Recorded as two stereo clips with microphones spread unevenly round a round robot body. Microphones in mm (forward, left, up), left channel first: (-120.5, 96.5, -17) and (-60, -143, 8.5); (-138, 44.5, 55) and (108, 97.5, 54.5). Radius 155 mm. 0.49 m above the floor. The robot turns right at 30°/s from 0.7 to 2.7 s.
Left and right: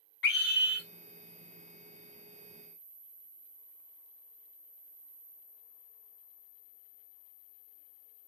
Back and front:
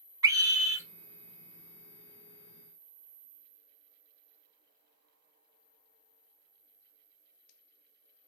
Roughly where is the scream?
Left.